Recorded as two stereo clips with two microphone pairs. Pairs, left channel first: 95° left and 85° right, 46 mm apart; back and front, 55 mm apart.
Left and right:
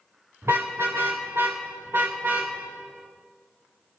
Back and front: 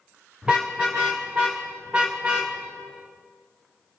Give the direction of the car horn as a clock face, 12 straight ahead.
2 o'clock.